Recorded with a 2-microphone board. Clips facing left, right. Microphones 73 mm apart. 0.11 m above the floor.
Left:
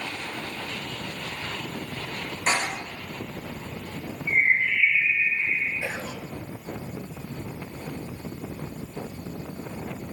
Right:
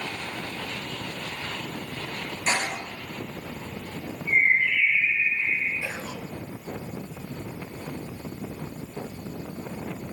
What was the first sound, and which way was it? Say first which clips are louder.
A door slam: left 1 dB; 50° left (ahead or behind).